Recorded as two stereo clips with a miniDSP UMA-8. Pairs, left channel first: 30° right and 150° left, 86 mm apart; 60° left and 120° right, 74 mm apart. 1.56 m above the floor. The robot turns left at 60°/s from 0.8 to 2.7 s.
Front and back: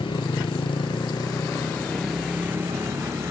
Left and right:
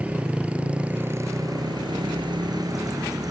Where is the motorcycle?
45° right; by 3.3 s 150° right.